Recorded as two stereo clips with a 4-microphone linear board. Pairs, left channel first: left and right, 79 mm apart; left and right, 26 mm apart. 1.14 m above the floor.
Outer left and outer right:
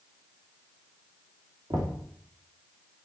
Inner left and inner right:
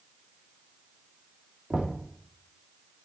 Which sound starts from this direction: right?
Knocking, at 1.7 s.